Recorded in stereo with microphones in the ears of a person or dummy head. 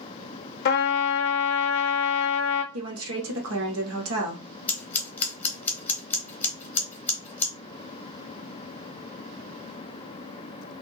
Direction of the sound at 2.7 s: 85° right.